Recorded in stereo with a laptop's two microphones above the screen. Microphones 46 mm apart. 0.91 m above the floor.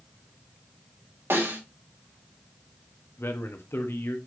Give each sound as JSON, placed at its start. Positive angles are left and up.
{"t": 1.3, "sound": "a snare drum", "side_deg": -65, "distance_m": 3.5}
{"t": 3.2, "sound": "a man speaking", "side_deg": 65, "distance_m": 1.3}